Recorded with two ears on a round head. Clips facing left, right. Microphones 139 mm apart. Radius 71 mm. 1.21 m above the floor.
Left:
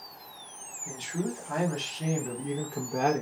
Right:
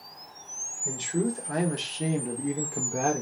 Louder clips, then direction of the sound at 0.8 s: Right 5 dB; 55° right (ahead or behind).